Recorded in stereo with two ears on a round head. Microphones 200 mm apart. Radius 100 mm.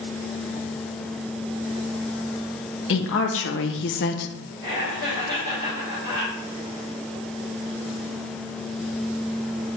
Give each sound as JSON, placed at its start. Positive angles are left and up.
{"t": 2.9, "sound": "a woman speaking", "side_deg": 60, "distance_m": 1.2}
{"t": 4.6, "sound": "laughter", "side_deg": -25, "distance_m": 4.0}